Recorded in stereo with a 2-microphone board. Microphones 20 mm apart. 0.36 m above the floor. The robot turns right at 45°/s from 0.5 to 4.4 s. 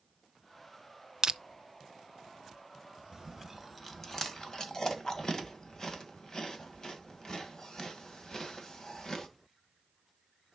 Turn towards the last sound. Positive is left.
turn(degrees=30)  # may be behind; listen again after turning